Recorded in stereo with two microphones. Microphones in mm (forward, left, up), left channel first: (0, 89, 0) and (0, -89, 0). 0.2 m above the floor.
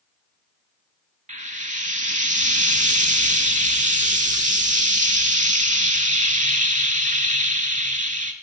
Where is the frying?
45° right (ahead or behind), 0.5 m.